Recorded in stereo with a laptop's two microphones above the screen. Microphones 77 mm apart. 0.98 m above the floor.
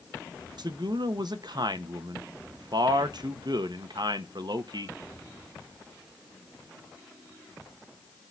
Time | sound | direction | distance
0.6 | a man speaking | 60° right (ahead or behind) | 1.0 m